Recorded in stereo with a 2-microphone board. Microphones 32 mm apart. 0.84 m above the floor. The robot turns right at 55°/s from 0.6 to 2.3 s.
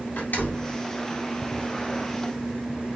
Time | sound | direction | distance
0.2 | a door slam | 65° left (ahead or behind) | 1.7 m